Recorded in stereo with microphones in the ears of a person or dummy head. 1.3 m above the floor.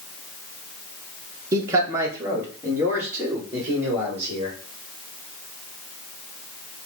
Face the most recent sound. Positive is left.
turn(degrees=-15)  # may be behind; listen again after turning